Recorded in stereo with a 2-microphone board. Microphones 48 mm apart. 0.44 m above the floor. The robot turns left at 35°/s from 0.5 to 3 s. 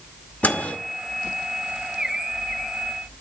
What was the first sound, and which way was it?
A microwave, 35° left (ahead or behind).